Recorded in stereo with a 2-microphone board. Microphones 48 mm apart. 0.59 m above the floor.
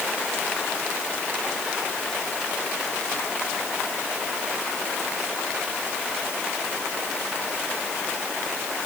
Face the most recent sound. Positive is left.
No sound to turn to.